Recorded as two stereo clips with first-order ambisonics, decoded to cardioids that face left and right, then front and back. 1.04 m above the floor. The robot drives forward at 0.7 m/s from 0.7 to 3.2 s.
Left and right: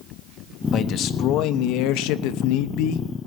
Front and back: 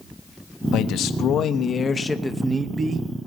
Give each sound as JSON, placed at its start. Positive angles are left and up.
{"t": 0.7, "sound": "a man speaking", "azimuth_deg": 40, "distance_m": 1.4}